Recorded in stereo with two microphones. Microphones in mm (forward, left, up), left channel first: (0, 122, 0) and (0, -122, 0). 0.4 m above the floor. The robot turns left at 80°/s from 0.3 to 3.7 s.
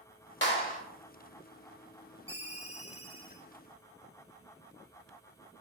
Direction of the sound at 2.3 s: 20° left (ahead or behind).